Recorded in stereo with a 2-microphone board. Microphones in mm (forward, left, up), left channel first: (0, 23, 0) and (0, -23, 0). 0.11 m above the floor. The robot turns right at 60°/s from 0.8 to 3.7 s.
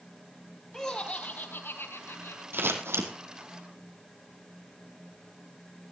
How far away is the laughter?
About 3 m.